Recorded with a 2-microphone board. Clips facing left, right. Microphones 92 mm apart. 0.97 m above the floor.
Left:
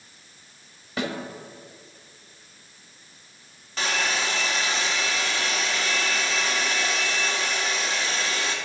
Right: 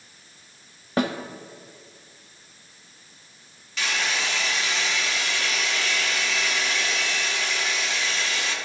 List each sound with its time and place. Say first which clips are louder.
1.0 s a snare drum: right 5 dB; 50° right (ahead or behind), 0.8 m
3.8 s a hair dryer: left 1 dB; 40° left (ahead or behind), 1.0 m